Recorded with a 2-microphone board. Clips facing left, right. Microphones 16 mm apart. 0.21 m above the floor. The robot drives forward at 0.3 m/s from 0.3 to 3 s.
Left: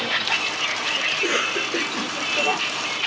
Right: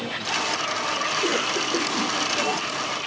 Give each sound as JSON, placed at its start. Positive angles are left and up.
{"t": 0.0, "sound": "a vehicle", "side_deg": 35}
{"t": 1.1, "sound": "a cough", "side_deg": 15}